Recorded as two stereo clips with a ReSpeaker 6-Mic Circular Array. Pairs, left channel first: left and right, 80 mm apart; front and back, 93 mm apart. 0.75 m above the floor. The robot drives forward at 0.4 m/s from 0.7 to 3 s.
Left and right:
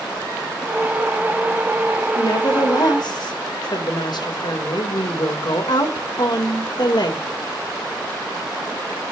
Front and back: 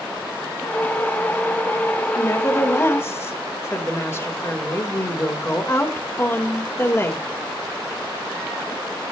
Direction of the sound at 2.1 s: 55° left.